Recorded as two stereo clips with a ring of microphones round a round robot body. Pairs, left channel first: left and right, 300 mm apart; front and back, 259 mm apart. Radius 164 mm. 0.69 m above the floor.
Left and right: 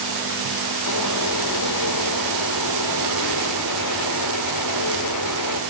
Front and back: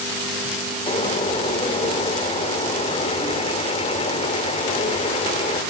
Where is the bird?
70° left, 2.5 m.